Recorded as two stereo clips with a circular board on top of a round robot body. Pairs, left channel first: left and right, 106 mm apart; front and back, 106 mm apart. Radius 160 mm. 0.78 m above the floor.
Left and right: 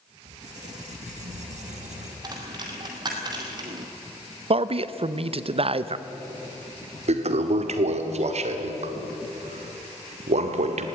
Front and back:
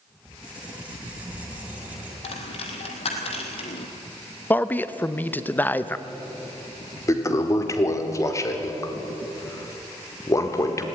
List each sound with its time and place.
0.2 s a squeak: 100° right, 3 m
2.2 s a dropped coin: 35° right, 1.7 m
4.5 s a man speaking: 75° right, 1.0 m
7.1 s a toilet flushing: 65° right, 1.3 m